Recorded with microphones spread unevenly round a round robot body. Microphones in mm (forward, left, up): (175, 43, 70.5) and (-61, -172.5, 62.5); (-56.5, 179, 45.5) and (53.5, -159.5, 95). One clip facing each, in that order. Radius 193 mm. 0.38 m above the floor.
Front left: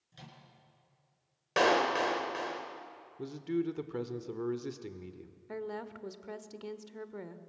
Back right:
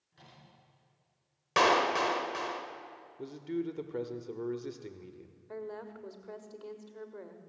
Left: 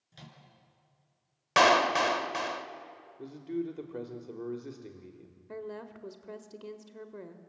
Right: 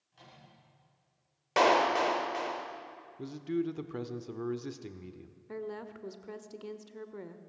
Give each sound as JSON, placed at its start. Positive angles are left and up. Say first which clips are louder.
{"t": 0.1, "sound": "a microwave", "louder": "front left 5 dB, left 5 dB", "azimuth_deg": 90, "distance_m": 5.5}
{"t": 1.6, "sound": "a clap", "louder": "even, even", "azimuth_deg": 145, "distance_m": 1.6}
{"t": 3.2, "sound": "a man speaking", "louder": "front left 2 dB, right 2 dB", "azimuth_deg": -20, "distance_m": 1.3}
{"t": 5.5, "sound": "a woman speaking", "louder": "front left 2 dB, right 1 dB", "azimuth_deg": 20, "distance_m": 1.5}